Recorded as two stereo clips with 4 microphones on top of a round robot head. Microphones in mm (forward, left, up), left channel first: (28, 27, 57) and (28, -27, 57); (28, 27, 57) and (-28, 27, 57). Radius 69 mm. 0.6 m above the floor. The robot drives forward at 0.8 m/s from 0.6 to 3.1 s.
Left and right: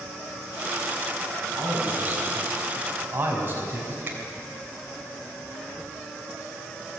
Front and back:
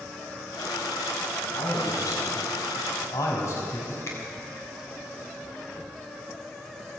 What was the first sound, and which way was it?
A man speaking, 35° right.